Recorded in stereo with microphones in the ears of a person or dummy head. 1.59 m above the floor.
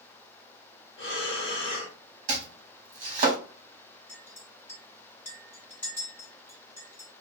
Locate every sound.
1.0 s breathing: 60° left (ahead or behind), 1.2 m
2.3 s chopping: 40° right (ahead or behind), 1.2 m
4.1 s a clink: 20° left (ahead or behind), 2 m